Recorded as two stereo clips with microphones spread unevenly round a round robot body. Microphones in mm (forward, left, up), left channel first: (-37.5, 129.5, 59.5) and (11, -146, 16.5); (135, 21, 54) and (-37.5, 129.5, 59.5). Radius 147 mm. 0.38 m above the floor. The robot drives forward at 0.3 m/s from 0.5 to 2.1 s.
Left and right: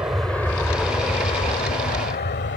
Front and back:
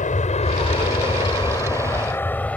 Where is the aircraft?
5° right; by 2.6 s 50° left.